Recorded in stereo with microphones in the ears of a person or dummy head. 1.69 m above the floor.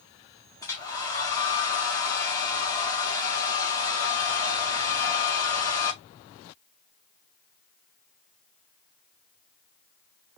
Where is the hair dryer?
20° left (ahead or behind), 1.6 m.